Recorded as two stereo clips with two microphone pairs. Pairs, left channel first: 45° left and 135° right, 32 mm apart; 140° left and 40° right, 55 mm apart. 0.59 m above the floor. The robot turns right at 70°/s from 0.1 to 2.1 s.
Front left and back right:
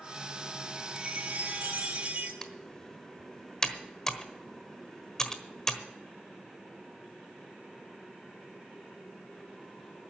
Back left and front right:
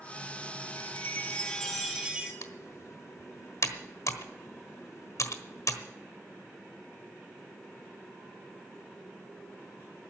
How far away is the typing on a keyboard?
About 1.3 m.